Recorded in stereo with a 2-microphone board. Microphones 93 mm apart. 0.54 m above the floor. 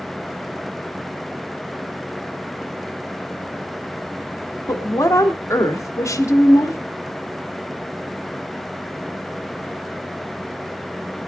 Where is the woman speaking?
35° left (ahead or behind), 1.2 m.